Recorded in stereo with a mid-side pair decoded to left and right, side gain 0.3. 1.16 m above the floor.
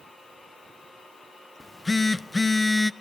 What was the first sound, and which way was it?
A phone buzzing, 30° left.